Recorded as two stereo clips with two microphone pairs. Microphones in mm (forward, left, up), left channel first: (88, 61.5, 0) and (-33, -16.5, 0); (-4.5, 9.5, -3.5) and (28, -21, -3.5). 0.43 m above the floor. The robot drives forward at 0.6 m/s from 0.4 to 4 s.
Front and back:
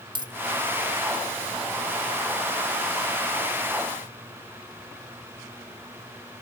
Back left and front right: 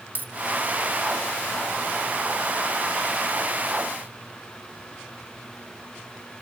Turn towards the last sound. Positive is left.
turn(degrees=-150)